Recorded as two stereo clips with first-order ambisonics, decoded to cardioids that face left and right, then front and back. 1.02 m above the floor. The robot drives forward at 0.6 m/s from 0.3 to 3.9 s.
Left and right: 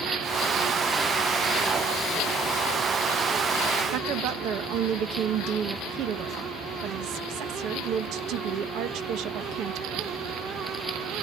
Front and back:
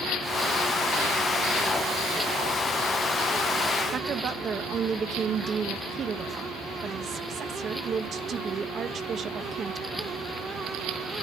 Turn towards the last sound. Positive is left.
turn(degrees=-120)